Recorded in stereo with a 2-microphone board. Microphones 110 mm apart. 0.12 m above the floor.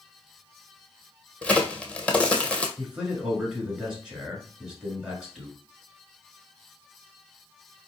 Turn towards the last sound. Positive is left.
turn(degrees=-5)  # may be behind; listen again after turning